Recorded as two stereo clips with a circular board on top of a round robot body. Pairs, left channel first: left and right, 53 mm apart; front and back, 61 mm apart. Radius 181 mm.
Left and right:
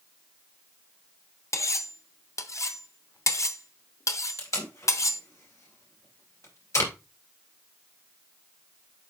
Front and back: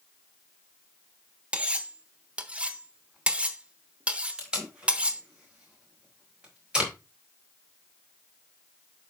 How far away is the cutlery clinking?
About 1.0 m.